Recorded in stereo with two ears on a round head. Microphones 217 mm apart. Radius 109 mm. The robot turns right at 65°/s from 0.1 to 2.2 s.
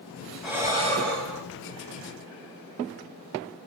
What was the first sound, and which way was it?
Breathing, straight behind.